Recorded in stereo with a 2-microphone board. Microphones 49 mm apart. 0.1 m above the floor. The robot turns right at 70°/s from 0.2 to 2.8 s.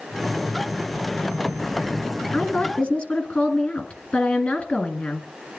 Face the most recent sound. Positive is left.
turn(degrees=20)  # may be behind; listen again after turning